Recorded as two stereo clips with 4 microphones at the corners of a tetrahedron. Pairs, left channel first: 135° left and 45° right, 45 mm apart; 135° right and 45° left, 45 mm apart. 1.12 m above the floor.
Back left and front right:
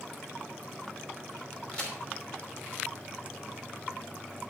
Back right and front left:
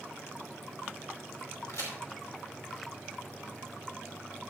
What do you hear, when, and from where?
1.7 s a crack: 145° right, 5 m